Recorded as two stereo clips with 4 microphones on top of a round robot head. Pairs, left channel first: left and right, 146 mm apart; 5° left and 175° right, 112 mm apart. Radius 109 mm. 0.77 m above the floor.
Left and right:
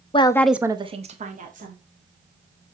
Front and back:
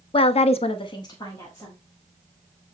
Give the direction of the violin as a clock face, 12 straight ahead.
No violin in this recording.